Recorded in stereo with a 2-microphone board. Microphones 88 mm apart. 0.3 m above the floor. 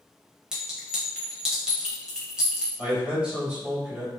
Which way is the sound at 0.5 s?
10° right (ahead or behind).